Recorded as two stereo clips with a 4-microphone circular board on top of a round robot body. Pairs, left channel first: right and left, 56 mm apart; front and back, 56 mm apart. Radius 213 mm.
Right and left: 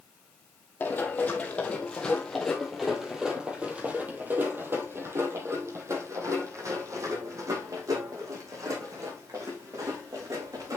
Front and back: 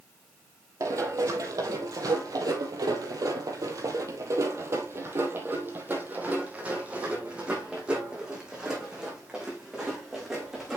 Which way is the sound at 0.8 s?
150° right.